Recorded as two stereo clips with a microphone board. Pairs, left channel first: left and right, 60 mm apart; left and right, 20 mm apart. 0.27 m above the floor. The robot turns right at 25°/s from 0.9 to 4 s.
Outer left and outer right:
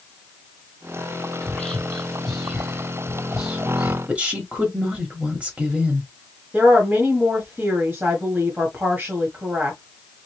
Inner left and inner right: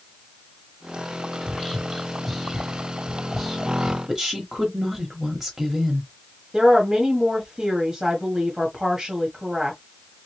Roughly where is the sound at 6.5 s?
Right.